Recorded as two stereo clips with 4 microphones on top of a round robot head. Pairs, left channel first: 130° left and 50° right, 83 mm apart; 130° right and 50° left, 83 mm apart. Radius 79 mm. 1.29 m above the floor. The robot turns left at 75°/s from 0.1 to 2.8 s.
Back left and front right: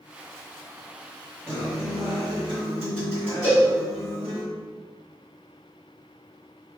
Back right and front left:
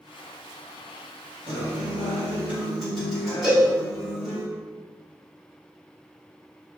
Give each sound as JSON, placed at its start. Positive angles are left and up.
{"t": 1.5, "sound": "a guitar", "azimuth_deg": 60, "distance_m": 1.9}
{"t": 3.4, "sound": "a cowbell", "azimuth_deg": 130, "distance_m": 1.6}